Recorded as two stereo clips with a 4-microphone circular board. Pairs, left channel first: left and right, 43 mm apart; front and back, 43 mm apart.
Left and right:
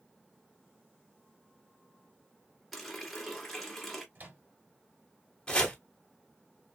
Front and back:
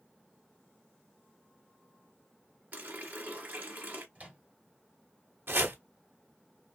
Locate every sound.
2.7 s a running tap: 175° left, 1.3 m
4.2 s a microwave: 125° right, 2.5 m
5.5 s chopping: 155° left, 1.0 m